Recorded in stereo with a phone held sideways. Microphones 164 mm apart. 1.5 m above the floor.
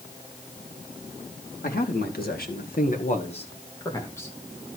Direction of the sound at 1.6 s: 70° left (ahead or behind).